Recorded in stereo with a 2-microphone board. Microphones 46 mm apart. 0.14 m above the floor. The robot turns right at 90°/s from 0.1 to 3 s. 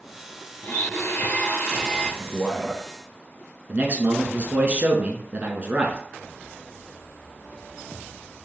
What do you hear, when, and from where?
0.6 s a blender: 60° left, 3 m; by 2.1 s 165° right, 3 m
2.2 s a man speaking: 15° left (ahead or behind), 1.1 m; by 2.8 s 5° right (ahead or behind), 1.1 m
3.7 s a man speaking: 35° right (ahead or behind), 1.3 m